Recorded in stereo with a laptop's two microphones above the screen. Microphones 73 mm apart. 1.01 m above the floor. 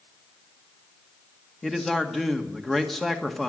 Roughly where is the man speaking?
Centre.